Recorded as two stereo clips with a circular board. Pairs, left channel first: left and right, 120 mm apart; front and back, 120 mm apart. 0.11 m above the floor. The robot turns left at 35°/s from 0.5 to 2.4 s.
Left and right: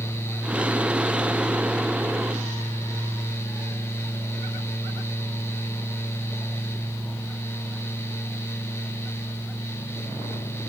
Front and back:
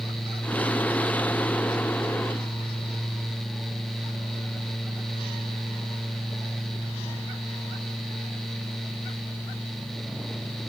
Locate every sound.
Only background noise.